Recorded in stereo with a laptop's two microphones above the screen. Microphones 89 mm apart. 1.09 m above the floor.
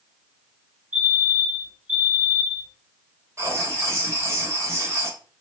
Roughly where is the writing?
Right.